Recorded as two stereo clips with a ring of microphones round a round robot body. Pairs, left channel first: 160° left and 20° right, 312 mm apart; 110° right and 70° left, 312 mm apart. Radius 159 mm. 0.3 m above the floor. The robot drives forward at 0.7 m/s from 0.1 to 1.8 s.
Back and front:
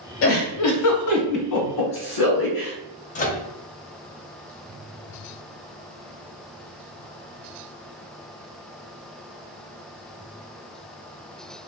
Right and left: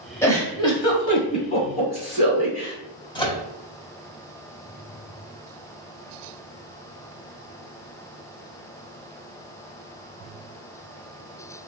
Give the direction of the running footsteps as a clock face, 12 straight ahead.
I don't hear running footsteps.